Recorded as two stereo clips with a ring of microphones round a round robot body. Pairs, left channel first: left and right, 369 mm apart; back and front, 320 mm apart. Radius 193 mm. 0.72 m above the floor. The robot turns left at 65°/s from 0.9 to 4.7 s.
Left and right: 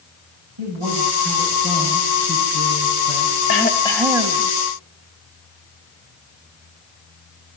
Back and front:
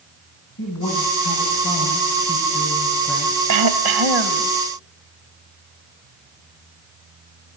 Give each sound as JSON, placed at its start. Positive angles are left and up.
{"t": 0.6, "sound": "a woman speaking", "azimuth_deg": -120, "distance_m": 5.5}
{"t": 3.5, "sound": "throat clearing", "azimuth_deg": 35, "distance_m": 1.5}